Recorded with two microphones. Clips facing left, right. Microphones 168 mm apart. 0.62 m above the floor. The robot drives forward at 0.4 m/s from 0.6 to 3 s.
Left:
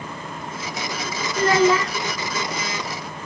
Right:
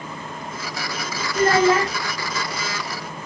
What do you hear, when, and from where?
1.4 s a child speaking: 45° right (ahead or behind), 1.2 m; by 1.9 s 55° right (ahead or behind), 1.1 m